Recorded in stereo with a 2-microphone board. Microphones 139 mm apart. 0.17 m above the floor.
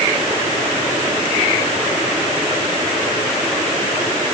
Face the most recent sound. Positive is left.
No sound to turn to.